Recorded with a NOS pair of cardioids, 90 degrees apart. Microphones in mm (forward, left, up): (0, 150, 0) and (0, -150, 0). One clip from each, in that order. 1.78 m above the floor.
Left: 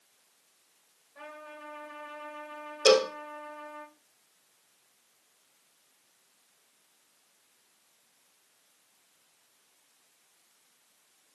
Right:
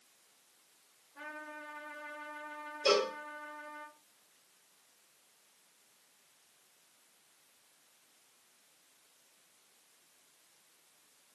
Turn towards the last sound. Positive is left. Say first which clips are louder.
# left 7 dB
turn(degrees=55)